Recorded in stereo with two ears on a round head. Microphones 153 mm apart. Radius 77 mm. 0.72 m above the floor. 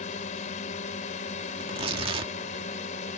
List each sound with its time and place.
0.0 s a drone: 45° left (ahead or behind)
1.6 s tearing paper: 30° right (ahead or behind)